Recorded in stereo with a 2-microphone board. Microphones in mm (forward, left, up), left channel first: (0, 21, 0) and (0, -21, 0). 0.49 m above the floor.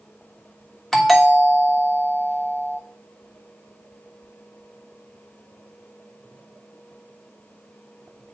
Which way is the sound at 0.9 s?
10° left (ahead or behind).